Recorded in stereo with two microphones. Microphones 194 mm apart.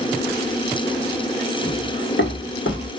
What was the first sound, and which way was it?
Footsteps, 55° left (ahead or behind).